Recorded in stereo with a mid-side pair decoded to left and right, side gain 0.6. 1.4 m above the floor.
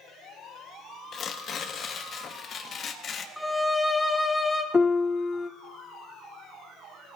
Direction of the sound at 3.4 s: 5° left.